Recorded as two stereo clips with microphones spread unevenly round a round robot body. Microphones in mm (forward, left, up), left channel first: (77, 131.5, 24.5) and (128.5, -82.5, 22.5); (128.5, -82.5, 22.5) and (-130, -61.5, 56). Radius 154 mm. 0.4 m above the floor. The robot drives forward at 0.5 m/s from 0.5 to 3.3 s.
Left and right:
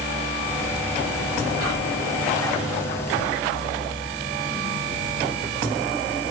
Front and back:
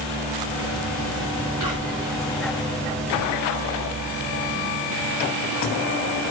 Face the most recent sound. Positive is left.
turn(degrees=-125)